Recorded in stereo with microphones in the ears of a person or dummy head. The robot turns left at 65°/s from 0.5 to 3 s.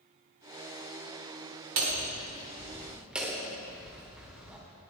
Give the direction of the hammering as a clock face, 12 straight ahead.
3 o'clock.